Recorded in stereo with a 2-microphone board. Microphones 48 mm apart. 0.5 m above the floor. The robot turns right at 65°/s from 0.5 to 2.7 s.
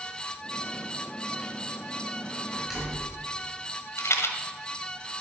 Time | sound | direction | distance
2.5 | a door slam | 15° right (ahead or behind) | 4 m
4.0 | a rattle | 80° left | 1.2 m